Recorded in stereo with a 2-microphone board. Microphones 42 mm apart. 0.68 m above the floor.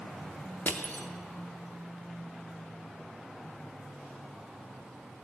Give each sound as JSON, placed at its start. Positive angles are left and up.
{"t": 0.7, "sound": "crushing", "side_deg": 55, "distance_m": 0.6}